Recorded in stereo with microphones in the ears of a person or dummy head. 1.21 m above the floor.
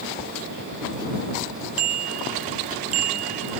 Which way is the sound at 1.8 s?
50° right (ahead or behind).